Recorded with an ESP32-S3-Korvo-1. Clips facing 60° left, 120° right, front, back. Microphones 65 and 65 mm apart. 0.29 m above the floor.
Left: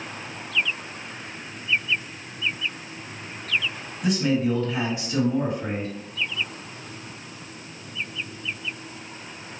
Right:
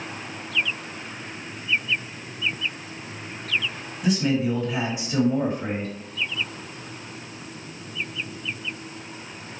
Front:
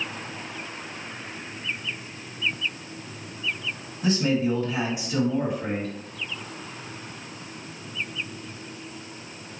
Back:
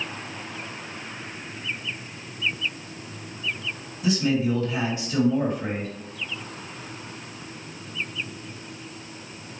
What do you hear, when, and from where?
4.0 s a man speaking: 25° right, 2 m; by 5.9 s 100° right, 2 m